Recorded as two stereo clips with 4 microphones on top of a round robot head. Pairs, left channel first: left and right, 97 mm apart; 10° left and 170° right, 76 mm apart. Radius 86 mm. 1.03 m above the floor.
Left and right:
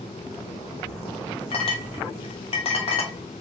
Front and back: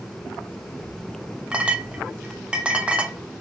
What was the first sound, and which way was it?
A clink, 115° left.